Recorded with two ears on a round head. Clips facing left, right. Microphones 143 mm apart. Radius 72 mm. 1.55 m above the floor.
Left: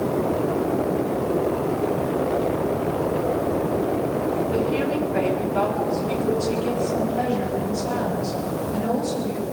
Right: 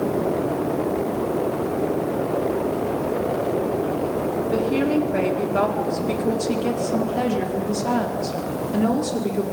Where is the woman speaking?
50° right (ahead or behind), 4.5 m; by 9.4 s 75° right (ahead or behind), 5 m.